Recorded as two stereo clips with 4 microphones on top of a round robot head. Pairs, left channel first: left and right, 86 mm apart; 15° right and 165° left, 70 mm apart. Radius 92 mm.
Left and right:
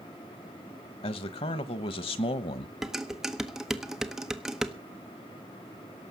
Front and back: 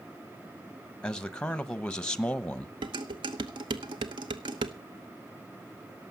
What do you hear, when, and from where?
1.0 s a man speaking: 65° left, 1.1 m
2.8 s dishes clattering: 175° right, 0.9 m